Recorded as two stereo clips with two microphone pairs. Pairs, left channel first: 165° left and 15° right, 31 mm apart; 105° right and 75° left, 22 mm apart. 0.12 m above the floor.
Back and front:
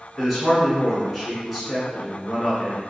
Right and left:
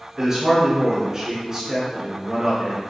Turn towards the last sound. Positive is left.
turn(degrees=80)